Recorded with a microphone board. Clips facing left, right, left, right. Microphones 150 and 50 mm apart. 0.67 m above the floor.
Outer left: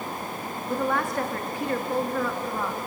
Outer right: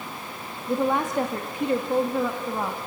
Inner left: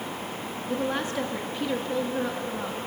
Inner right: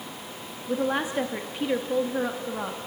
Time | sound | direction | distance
0.7 | a woman speaking | 20° right (ahead or behind) | 1.1 m